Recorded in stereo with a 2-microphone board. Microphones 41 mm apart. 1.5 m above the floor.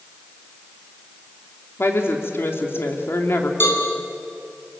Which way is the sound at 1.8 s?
75° left (ahead or behind).